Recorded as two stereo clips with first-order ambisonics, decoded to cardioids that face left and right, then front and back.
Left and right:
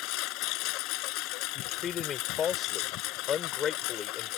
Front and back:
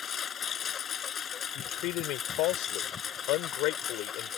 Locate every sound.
0.0 s a lawn mower: 65° left
1.6 s a man speaking: 30° left